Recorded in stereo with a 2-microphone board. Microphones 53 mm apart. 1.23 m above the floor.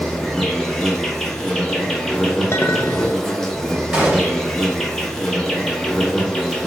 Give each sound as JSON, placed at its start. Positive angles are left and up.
{"t": 0.0, "sound": "an insect", "side_deg": 10, "distance_m": 1.0}
{"t": 2.5, "sound": "a clink", "side_deg": 45, "distance_m": 0.8}
{"t": 3.9, "sound": "a gunshot", "side_deg": -15, "distance_m": 1.4}